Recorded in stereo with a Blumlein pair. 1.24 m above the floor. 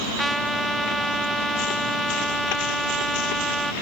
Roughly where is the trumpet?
Ahead.